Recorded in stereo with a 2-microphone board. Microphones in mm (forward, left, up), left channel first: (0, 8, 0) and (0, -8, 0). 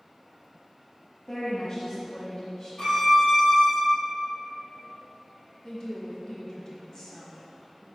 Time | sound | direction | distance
1.3 | a woman speaking | 40° left (ahead or behind) | 1.4 m
2.8 | a violin | 45° left (ahead or behind) | 2.0 m
5.6 | a woman speaking | 45° left (ahead or behind) | 1.5 m